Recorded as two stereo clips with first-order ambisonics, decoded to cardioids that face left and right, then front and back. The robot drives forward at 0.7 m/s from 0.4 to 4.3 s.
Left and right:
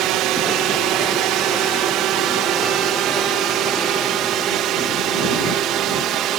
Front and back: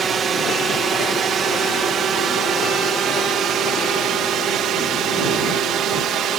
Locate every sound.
0.0 s a drone: 115° right; by 6.4 s 130° right